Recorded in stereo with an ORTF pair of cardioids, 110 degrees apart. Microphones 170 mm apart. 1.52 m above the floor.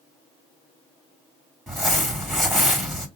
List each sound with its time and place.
1.7 s crumpling: straight ahead, 2.5 m